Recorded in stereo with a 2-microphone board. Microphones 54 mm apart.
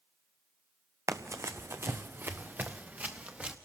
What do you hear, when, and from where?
1.1 s running footsteps: 70° right (ahead or behind), 0.9 m; by 3.5 s 25° right (ahead or behind), 1.9 m